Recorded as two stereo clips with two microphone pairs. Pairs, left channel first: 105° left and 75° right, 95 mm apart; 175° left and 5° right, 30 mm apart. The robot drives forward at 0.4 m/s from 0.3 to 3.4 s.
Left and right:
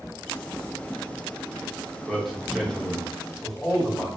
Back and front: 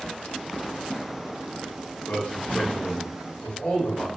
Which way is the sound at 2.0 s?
160° right.